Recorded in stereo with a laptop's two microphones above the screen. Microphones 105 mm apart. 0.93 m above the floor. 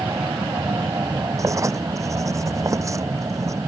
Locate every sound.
0.0 s an aircraft: 30° right (ahead or behind)
1.4 s writing: 30° right (ahead or behind)